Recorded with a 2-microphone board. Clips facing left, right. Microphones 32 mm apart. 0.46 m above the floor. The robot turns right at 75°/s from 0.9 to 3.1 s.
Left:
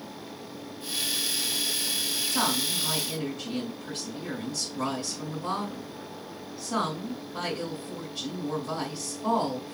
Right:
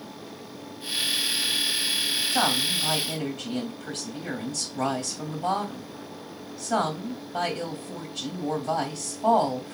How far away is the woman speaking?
About 2.5 m.